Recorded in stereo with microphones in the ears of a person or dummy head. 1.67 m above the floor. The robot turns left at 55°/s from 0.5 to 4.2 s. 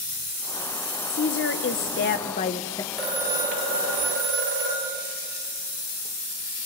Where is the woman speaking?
120° left, 1.0 m; by 2.8 s 20° left, 1.0 m.